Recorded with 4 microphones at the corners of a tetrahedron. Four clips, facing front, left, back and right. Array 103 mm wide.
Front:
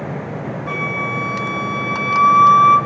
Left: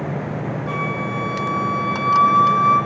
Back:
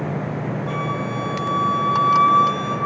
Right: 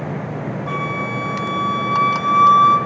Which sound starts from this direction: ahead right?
A flute, at 0.7 s.